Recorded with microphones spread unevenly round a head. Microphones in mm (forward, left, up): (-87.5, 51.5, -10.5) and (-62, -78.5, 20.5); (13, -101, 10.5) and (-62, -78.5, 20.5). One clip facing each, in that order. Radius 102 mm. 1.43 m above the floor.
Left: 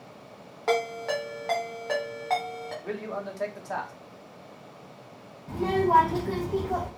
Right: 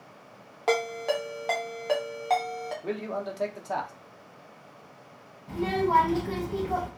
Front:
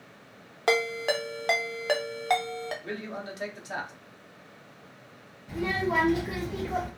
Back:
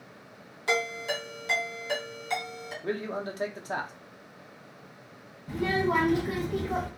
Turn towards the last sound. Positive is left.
turn(degrees=-175)